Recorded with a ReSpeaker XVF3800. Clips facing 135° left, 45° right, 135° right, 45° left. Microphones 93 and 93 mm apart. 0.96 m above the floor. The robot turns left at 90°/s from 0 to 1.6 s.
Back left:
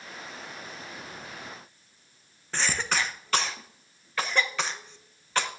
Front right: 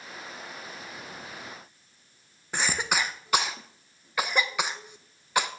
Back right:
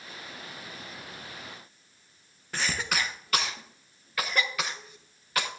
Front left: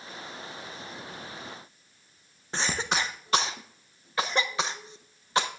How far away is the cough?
About 0.7 m.